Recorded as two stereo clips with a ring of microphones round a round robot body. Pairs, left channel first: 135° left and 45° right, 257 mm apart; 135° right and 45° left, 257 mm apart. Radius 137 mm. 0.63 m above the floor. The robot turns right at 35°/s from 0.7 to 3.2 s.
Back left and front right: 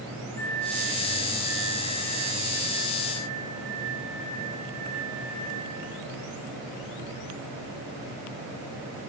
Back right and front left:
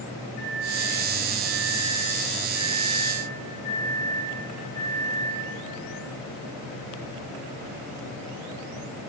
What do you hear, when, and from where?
0.4 s a microwave: 150° right, 4.5 m; by 5.4 s 60° right, 4.5 m